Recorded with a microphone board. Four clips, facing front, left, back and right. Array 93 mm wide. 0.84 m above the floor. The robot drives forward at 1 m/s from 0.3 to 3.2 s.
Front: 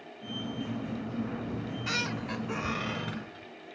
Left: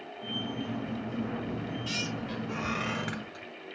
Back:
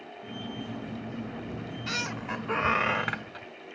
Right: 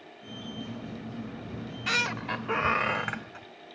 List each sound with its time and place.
1.5 s a squeak: 60° right, 0.9 m; by 3.5 s 150° right, 1.5 m